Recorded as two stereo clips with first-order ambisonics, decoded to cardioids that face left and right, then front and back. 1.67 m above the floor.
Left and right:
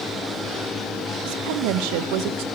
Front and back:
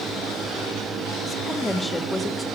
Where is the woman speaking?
80° right, 1.0 m.